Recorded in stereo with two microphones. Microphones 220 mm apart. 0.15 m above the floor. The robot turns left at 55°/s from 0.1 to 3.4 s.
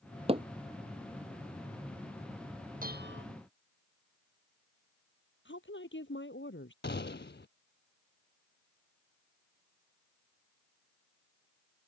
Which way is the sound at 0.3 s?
25° right (ahead or behind).